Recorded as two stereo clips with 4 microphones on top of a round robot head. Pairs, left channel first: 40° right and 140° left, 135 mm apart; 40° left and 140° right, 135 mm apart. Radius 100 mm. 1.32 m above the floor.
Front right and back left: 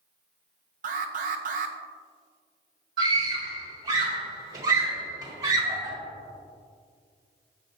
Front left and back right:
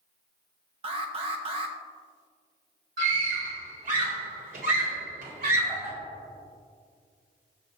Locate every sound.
0.8 s an alarm: 170° left, 0.9 m
3.0 s a scream: 160° right, 4 m